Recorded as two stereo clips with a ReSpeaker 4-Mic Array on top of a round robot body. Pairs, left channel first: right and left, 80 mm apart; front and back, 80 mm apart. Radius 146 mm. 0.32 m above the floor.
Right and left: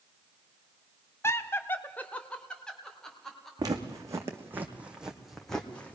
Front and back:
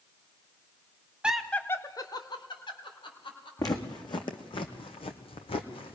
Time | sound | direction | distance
1.2 | laughter | 110° right | 1.1 m
3.6 | footsteps | 45° left | 1.9 m